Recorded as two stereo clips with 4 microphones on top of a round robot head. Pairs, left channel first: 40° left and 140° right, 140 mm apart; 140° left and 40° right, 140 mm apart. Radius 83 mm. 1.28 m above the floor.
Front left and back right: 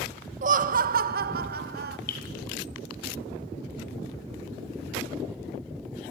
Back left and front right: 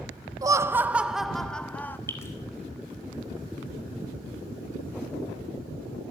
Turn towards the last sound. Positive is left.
turn(degrees=70)